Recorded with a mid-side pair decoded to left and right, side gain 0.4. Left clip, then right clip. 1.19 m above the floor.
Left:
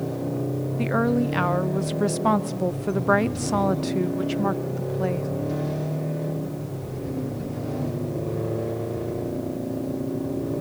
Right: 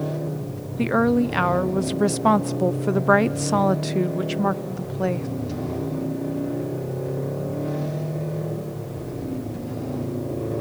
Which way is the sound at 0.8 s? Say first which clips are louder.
Right 4 dB; 25° right.